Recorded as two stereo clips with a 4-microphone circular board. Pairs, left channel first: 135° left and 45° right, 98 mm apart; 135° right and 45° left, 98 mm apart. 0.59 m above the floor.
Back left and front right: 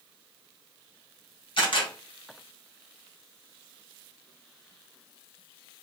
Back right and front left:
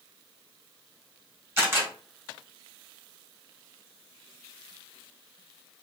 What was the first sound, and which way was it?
A camera shutter, 110° left.